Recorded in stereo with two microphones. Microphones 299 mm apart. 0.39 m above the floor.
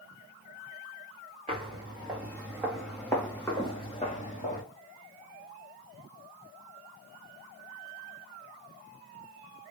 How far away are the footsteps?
About 2 m.